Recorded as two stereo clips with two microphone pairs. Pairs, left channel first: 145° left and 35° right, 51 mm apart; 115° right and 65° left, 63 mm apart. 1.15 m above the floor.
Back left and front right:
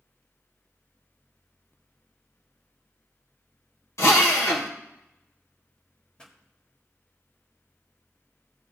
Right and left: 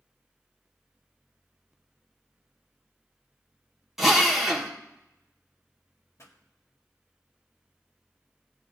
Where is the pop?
150° right, 1.5 m.